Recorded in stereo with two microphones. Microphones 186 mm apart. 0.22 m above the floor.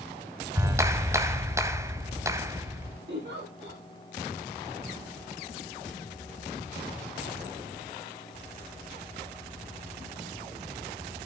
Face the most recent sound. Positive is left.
turn(degrees=-70)  # may be behind; listen again after turning